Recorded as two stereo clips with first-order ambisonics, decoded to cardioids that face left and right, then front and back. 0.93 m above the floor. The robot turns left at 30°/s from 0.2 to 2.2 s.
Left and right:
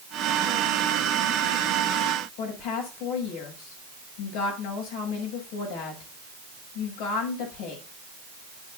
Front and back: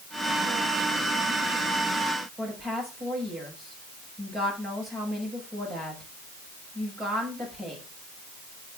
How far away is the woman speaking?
About 6 m.